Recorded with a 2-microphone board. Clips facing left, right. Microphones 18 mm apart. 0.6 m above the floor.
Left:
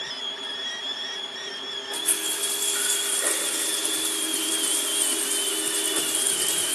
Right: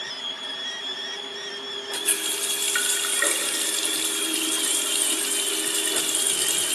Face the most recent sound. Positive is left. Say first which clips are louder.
# right 2 dB
turn(degrees=-70)  # may be behind; listen again after turning